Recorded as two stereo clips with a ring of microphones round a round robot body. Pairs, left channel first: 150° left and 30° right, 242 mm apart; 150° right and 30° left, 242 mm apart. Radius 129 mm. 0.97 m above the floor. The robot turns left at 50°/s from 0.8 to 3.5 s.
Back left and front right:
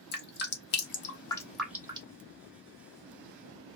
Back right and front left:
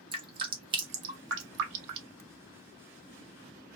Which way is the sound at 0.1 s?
100° left.